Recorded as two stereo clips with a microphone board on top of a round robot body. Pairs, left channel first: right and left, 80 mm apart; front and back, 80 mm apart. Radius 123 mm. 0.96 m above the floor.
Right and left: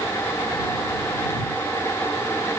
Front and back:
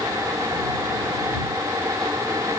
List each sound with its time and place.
Only background noise.